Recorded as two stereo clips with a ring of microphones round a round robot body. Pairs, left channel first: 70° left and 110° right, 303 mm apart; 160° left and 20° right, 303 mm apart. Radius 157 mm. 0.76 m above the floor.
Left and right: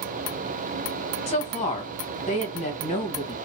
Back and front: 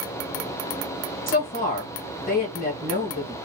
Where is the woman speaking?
120° left, 1.2 m.